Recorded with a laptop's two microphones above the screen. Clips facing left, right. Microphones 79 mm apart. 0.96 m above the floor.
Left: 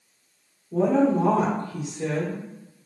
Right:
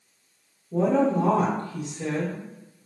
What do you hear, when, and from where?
0.7 s a woman speaking: 5° left (ahead or behind), 0.9 m